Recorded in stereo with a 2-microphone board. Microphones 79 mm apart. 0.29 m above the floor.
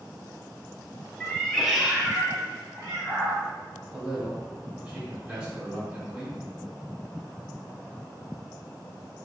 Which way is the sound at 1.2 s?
15° left (ahead or behind).